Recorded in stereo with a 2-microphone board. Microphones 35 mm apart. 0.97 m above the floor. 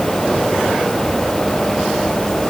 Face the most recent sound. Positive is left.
No sound to turn to.